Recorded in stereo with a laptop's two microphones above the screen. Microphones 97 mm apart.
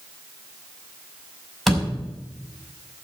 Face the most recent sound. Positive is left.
turn(degrees=0)  # may be behind; listen again after turning